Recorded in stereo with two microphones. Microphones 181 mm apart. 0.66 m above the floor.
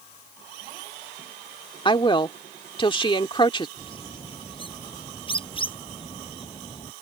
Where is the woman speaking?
30° left (ahead or behind).